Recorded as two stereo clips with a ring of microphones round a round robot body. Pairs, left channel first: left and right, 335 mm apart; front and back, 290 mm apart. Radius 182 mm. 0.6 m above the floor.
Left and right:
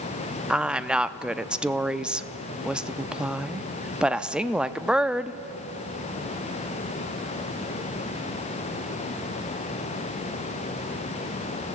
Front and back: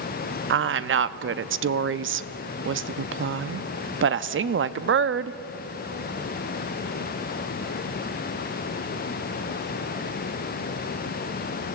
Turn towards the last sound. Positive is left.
turn(degrees=-175)